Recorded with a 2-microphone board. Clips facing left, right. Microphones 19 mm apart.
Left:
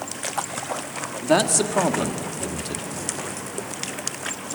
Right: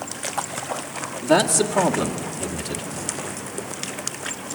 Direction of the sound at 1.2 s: 5° left (ahead or behind).